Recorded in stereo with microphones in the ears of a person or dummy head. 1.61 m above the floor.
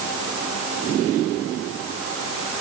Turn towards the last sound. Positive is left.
No sound to turn to.